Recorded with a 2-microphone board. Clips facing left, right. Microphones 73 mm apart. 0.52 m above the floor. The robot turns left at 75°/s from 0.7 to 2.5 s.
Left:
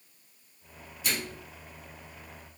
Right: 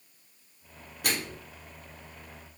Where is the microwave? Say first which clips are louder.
Right 2 dB; 55° right (ahead or behind), 0.9 m; by 1.4 s 40° right (ahead or behind), 0.9 m.